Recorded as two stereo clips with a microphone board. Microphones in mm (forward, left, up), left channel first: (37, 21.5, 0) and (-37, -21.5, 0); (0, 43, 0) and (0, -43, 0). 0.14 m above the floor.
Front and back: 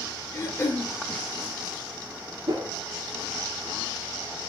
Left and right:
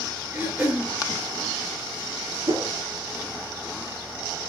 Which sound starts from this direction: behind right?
A whoosh, at 2.5 s.